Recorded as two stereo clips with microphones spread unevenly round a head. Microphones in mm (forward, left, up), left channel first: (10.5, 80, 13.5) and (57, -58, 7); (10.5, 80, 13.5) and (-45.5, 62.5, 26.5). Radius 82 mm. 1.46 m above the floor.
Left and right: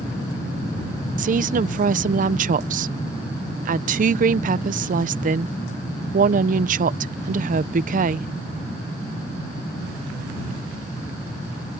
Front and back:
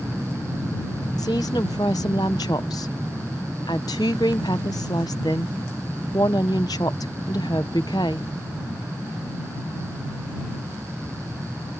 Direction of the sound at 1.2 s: 40° right.